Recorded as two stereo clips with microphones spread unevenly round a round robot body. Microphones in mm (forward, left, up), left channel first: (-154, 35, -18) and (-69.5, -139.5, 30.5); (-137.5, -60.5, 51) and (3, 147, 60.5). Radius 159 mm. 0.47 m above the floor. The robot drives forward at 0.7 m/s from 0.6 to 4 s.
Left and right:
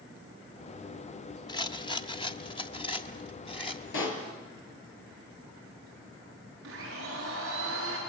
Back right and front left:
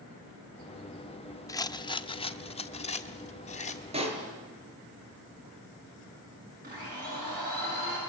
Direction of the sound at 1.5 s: 165° left.